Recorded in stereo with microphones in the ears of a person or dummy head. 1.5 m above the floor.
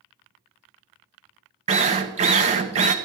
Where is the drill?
35° right (ahead or behind), 1.0 m.